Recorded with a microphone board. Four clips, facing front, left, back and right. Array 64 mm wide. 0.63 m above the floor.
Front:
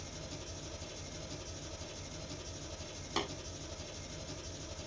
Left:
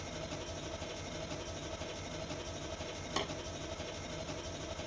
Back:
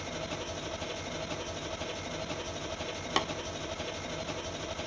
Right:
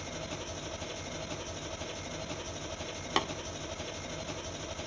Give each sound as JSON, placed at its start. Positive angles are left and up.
{"t": 0.0, "sound": "an engine running", "azimuth_deg": -160, "distance_m": 0.7}
{"t": 3.2, "sound": "tapping", "azimuth_deg": -120, "distance_m": 1.5}